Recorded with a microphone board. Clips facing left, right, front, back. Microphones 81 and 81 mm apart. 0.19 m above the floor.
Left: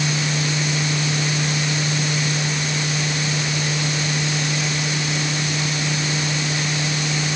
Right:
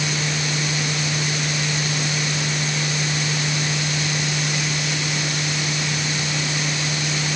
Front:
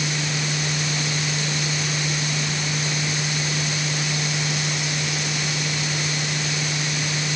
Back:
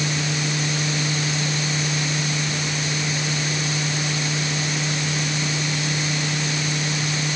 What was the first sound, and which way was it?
Only background noise.